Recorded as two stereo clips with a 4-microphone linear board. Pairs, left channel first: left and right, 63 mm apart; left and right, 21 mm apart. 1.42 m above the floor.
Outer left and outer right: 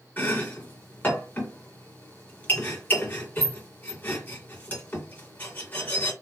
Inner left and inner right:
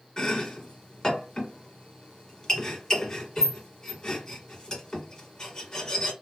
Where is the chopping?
30° left (ahead or behind), 1.8 m.